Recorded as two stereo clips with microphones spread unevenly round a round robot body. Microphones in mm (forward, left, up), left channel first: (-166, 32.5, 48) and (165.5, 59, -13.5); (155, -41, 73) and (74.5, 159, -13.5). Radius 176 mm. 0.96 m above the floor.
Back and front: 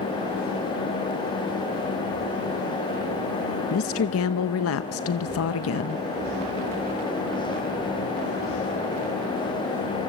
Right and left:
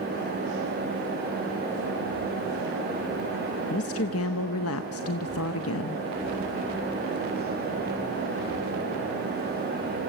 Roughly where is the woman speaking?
Behind right.